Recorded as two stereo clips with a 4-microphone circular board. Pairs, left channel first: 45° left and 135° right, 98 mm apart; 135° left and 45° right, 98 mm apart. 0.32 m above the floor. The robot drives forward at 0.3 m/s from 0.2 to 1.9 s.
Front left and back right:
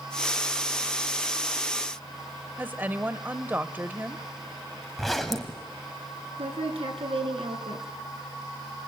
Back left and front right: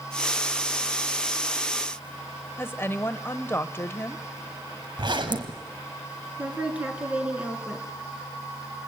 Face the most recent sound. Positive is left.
turn(degrees=-125)